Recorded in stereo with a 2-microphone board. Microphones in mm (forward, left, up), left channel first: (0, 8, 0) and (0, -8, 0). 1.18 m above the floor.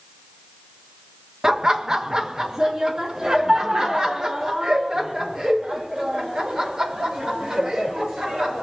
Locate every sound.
1.4 s laughter: 40° right (ahead or behind), 1.4 m